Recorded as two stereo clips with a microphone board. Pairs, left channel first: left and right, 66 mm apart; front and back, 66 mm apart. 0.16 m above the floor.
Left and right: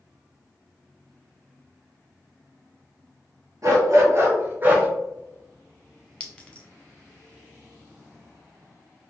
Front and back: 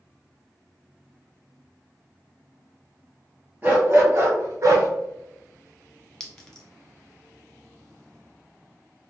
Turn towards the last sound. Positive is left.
turn(degrees=60)